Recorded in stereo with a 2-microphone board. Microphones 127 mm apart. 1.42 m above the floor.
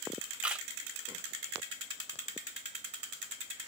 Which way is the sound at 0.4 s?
10° right (ahead or behind).